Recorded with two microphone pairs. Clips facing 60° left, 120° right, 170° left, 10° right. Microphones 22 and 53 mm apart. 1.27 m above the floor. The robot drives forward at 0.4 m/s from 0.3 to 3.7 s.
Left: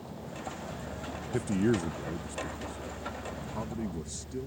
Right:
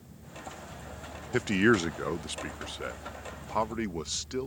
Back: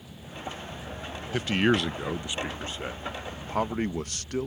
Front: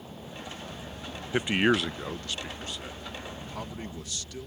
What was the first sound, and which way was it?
A vehicle, 50° left.